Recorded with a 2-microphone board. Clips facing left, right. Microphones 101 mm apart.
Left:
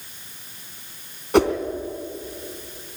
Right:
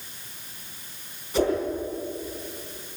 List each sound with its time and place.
1.3 s a whoosh: 70° left (ahead or behind), 3 m